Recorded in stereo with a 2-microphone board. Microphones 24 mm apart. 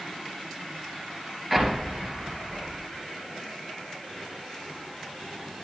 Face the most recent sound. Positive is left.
turn(degrees=-5)  # may be behind; listen again after turning